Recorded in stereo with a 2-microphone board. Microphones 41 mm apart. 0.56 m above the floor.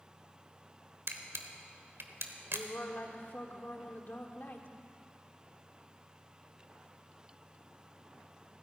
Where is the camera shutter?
75° right (ahead or behind), 1.1 m.